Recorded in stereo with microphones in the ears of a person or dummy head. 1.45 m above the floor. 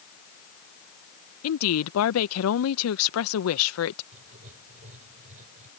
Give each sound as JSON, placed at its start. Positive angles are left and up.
{"t": 1.4, "sound": "a woman speaking", "side_deg": 90}
{"t": 4.1, "sound": "writing", "side_deg": -45}